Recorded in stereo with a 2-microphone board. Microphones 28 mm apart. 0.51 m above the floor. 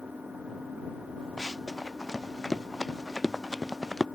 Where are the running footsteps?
15° left (ahead or behind); by 4.0 s 5° left (ahead or behind).